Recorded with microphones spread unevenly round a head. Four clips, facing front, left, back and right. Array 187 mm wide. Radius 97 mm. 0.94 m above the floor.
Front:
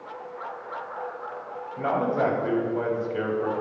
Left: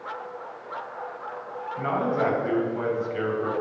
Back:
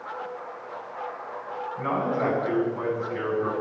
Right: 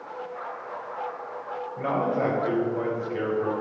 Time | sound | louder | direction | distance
1.8 | a man speaking | even, front 3 dB | 25° right | 3.5 m